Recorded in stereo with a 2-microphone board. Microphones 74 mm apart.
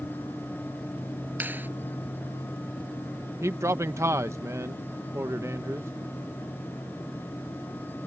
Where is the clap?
25° right (ahead or behind).